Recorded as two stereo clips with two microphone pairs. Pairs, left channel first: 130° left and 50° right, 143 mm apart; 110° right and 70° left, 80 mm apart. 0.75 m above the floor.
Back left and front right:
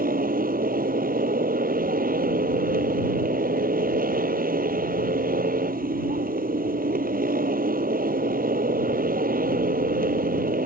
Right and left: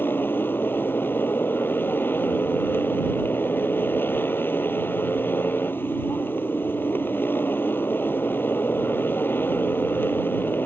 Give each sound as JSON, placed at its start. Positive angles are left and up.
{"t": 0.0, "sound": "a motorcycle", "azimuth_deg": -50}